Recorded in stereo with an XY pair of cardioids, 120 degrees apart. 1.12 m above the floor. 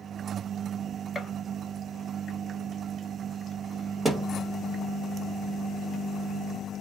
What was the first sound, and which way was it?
A gunshot, 10° left.